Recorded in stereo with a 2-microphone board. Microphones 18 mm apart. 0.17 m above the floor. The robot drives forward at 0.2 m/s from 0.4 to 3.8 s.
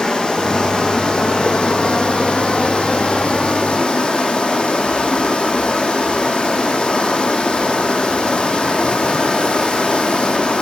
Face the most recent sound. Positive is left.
turn(degrees=75)  # may be behind; listen again after turning